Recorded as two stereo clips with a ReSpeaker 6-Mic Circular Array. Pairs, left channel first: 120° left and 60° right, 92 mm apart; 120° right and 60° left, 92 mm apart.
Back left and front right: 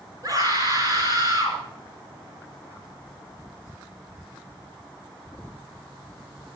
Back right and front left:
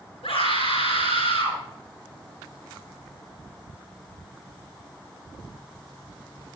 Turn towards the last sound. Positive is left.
turn(degrees=-110)